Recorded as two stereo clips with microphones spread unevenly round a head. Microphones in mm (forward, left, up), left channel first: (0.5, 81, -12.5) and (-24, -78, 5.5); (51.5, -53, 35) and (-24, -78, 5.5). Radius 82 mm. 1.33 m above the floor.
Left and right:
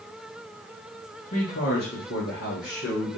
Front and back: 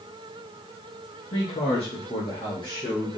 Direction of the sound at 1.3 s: 30° left.